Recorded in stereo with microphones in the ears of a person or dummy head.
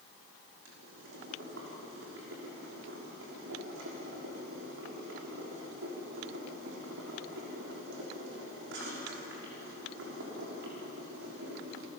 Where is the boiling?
70° right (ahead or behind), 5.5 m.